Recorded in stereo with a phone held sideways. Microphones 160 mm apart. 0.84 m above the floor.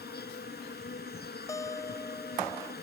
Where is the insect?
80° left.